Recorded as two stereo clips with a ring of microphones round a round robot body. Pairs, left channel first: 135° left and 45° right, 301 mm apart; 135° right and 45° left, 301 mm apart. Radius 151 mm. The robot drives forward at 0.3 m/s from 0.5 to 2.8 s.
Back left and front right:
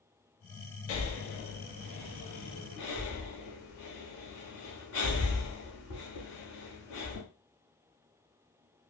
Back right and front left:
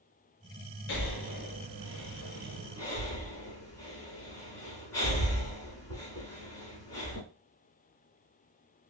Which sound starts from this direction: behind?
Breathing, at 0.9 s.